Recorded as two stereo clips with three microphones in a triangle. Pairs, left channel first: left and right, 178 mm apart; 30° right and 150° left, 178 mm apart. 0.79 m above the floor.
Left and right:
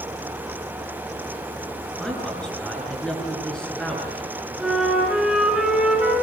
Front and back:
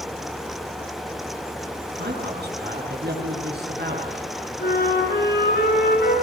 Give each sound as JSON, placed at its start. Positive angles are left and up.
{"t": 2.0, "sound": "a man speaking", "azimuth_deg": 175, "distance_m": 9.5}
{"t": 4.6, "sound": "a flute", "azimuth_deg": -5, "distance_m": 6.0}